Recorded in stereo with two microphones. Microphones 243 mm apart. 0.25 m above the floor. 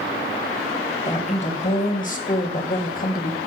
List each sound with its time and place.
1.1 s a woman speaking: 30° left (ahead or behind), 1.6 m; by 3.4 s 40° left (ahead or behind), 1.5 m